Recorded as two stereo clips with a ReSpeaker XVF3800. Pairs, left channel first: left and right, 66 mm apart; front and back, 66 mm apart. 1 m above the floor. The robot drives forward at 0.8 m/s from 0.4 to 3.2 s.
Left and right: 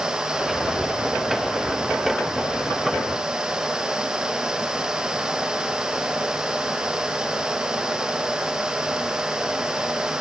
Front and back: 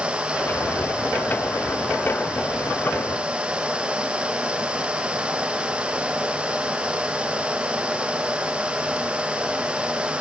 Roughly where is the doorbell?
I don't hear a doorbell.